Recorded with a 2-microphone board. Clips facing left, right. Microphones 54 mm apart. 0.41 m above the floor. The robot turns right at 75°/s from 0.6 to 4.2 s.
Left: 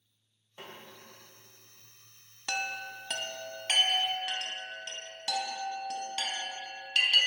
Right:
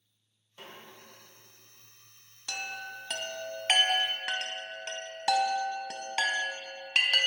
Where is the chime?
50° left (ahead or behind), 0.5 m; by 7.3 s 75° right (ahead or behind), 0.5 m.